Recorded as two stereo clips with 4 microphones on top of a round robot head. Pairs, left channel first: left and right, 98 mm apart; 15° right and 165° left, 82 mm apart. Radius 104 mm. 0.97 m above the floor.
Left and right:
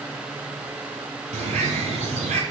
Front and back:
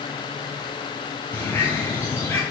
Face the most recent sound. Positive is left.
turn(degrees=-85)